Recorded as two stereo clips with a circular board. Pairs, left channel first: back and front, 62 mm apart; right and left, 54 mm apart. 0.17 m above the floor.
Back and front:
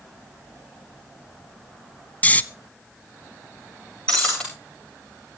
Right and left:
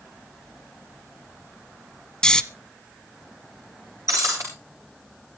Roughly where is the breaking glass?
Left.